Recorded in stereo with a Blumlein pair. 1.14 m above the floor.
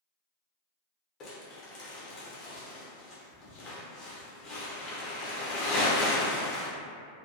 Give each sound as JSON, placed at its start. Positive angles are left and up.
{"t": 1.2, "sound": "crumpling", "azimuth_deg": 30, "distance_m": 0.8}